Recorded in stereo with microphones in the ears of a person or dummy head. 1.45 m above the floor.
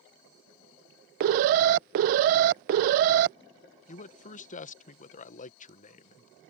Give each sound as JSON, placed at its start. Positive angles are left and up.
{"t": 1.2, "sound": "an alarm", "side_deg": -50}
{"t": 3.9, "sound": "a man speaking", "side_deg": 40}